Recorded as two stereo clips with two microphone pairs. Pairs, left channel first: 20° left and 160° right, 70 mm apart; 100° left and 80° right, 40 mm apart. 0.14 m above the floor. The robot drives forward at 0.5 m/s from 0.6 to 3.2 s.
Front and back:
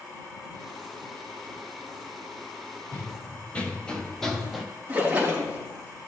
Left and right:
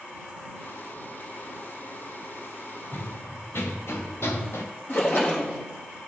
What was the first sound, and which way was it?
Running footsteps, 80° left.